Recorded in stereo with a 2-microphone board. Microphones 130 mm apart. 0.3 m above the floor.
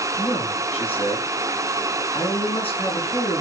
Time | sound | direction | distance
0.2 | a man speaking | 45° left (ahead or behind) | 4 m